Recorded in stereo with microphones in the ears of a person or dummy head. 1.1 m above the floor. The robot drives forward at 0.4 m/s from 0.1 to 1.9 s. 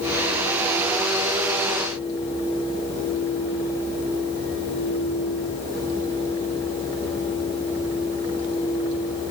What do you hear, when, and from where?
Only background noise.